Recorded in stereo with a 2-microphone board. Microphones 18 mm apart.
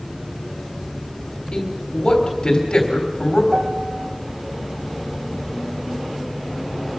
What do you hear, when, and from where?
1.5 s a man speaking: 50° left (ahead or behind), 3.5 m
3.5 s a piano: 65° right (ahead or behind), 1.4 m